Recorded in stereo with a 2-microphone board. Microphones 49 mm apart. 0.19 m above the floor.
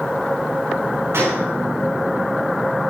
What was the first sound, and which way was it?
A gunshot, 60° right (ahead or behind).